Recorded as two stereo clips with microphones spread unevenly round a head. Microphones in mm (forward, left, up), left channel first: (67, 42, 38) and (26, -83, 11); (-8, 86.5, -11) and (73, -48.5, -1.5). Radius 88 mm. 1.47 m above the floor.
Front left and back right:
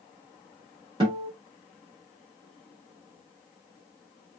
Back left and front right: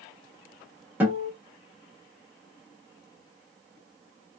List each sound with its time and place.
1.0 s a guitar: 95° right, 1.1 m